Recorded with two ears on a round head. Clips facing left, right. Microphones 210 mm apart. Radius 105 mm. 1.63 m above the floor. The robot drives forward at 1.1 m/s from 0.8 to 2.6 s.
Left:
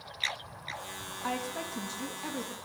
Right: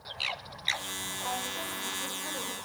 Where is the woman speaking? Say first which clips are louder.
Left 4 dB; 80° left, 2 m; by 2.6 s 55° left (ahead or behind), 2.5 m.